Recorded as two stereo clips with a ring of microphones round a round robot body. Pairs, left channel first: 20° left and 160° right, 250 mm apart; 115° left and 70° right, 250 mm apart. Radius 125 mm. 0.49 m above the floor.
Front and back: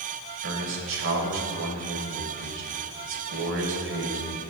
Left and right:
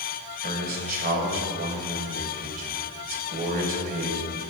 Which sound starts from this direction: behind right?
A man speaking, at 0.4 s.